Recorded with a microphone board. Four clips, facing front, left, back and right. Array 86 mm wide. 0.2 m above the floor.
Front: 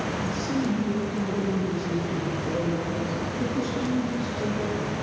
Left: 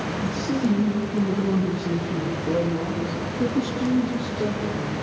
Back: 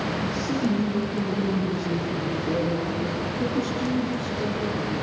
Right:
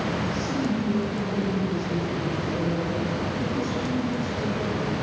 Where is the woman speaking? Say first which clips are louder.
Left 3 dB, back 1 dB; 115° left, 9 m; by 4.9 s 105° left, 11 m.